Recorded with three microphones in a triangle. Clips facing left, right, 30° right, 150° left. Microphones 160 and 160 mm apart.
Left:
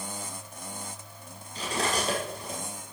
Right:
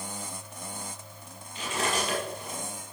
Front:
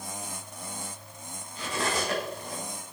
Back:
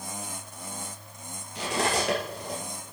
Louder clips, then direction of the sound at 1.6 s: Left 1 dB, back 3 dB; 140° left.